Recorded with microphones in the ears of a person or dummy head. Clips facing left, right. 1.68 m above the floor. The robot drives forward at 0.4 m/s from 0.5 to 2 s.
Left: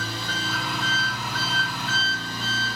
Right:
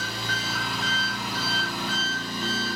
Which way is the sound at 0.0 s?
15° right (ahead or behind).